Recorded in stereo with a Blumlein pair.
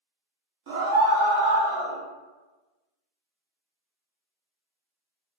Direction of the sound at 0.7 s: 50° right.